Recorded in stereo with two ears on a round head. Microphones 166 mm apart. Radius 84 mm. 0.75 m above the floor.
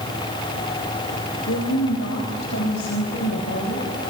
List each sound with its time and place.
1.5 s a woman speaking: 75° left (ahead or behind), 4 m; by 3.9 s 80° left, 6 m